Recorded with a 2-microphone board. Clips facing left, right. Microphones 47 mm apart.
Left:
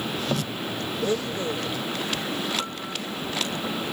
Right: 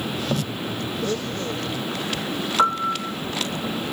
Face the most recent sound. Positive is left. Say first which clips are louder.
# right 11 dB
turn(degrees=-80)